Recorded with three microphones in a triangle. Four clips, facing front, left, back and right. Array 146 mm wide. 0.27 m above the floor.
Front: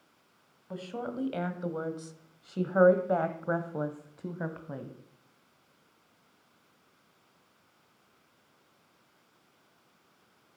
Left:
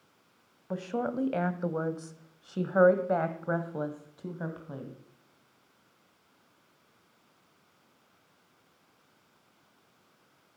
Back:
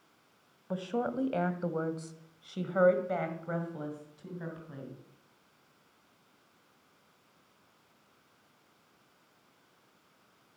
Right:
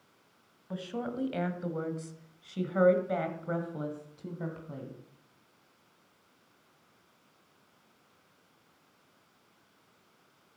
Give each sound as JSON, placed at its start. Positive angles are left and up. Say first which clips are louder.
{"t": 0.7, "sound": "a woman speaking", "louder": "left 4 dB, back 4 dB", "azimuth_deg": 130, "distance_m": 1.7}